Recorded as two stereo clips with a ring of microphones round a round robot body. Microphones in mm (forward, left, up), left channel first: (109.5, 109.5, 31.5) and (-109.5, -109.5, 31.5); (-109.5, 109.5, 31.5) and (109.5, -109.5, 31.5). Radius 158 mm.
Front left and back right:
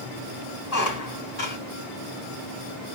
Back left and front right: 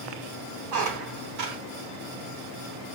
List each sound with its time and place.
0.7 s a squeak: straight ahead, 4 m